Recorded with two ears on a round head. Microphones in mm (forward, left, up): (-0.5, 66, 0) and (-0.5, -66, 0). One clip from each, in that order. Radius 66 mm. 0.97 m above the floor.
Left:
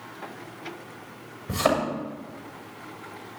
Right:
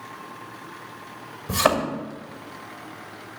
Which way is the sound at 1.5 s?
40° right (ahead or behind).